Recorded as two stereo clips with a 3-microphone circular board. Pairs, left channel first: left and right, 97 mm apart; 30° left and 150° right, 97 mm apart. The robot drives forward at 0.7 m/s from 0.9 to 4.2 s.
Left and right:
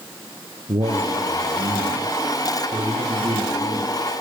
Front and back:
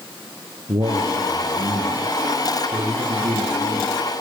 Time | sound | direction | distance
0.7 | a man speaking | 115° right | 7 m